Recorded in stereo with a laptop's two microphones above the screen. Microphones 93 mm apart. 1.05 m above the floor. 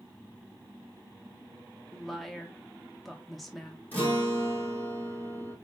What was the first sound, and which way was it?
A woman speaking, centre (ahead or behind).